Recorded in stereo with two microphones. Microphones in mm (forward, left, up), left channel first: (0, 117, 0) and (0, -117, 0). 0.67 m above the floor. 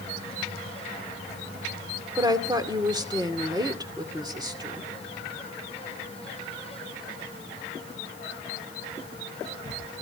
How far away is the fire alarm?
No fire alarm in this recording.